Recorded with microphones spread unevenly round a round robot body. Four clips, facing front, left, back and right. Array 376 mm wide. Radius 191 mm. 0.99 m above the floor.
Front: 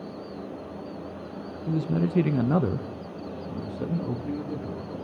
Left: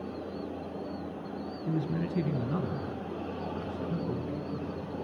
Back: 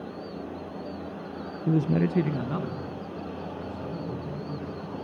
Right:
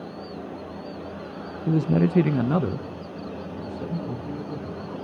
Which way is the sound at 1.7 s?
120° right.